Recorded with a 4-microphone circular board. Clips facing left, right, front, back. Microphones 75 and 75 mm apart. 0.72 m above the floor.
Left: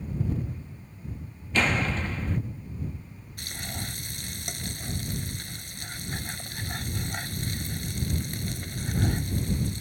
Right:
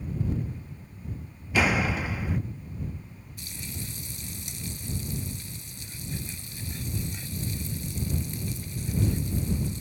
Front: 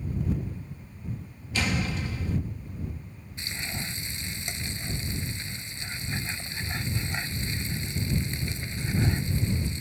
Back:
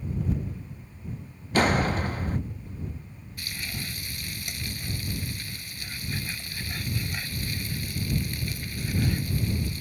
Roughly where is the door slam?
Behind.